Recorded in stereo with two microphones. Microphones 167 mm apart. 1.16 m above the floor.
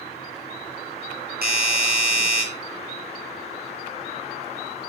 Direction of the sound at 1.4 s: 70° right (ahead or behind).